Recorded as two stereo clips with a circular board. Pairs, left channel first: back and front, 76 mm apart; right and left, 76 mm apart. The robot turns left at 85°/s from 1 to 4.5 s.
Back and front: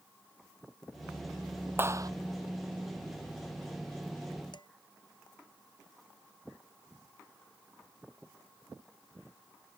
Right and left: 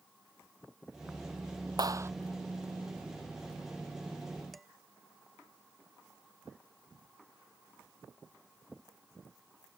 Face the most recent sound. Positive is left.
turn(degrees=180)